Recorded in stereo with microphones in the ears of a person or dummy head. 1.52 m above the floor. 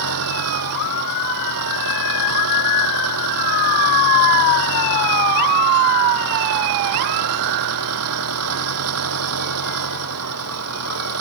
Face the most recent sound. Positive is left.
turn(degrees=-85)